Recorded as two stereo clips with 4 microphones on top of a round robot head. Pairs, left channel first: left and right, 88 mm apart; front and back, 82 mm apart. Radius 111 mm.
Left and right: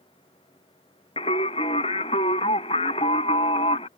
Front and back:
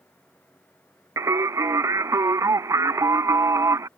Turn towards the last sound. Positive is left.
turn(degrees=130)